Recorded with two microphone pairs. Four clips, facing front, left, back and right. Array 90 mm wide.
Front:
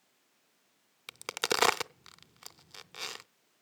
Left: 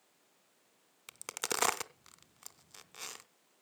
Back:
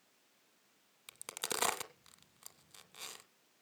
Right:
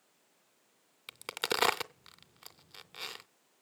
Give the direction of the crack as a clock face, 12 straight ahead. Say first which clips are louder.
Right 4 dB, front 10 dB; 1 o'clock.